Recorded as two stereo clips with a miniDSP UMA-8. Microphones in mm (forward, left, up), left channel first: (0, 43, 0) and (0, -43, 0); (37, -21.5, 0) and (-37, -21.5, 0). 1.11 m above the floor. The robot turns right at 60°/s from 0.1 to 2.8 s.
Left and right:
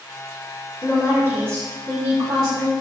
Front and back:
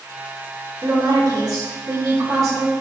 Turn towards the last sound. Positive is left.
turn(degrees=-115)